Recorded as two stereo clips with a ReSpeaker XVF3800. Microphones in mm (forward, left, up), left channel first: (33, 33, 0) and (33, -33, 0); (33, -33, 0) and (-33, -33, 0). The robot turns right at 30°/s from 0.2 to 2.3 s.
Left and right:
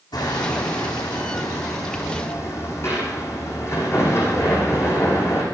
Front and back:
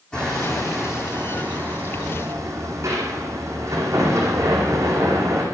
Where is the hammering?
75° left, 10 m; by 5.4 s 140° left, 10 m.